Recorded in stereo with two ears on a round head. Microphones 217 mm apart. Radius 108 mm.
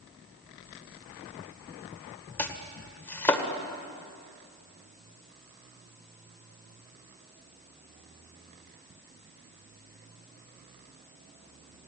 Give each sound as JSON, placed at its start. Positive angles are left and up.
{"t": 2.4, "sound": "chopping", "side_deg": 10, "distance_m": 1.9}